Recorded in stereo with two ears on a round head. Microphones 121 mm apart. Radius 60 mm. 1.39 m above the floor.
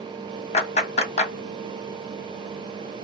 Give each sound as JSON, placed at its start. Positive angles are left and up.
{"t": 0.5, "sound": "a clap", "side_deg": 55, "distance_m": 1.4}